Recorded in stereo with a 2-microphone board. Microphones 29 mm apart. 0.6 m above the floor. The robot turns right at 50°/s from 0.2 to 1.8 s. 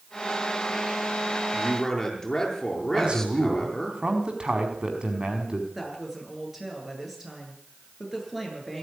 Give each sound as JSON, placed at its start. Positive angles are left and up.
{"t": 1.5, "sound": "a man speaking", "side_deg": 0, "distance_m": 8.5}
{"t": 2.9, "sound": "a man speaking", "side_deg": -35, "distance_m": 5.0}
{"t": 5.8, "sound": "a woman speaking", "side_deg": -10, "distance_m": 9.0}